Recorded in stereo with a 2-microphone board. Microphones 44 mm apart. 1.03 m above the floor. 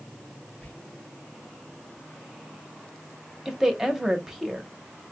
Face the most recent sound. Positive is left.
turn(degrees=-10)  # may be behind; listen again after turning